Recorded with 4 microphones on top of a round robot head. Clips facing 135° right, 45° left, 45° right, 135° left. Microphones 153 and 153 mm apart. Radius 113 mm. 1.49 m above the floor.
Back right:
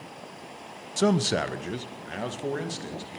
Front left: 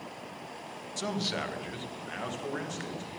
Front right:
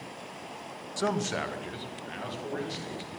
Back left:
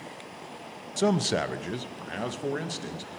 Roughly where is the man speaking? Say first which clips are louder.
Back right 11 dB, back left 5 dB; behind right.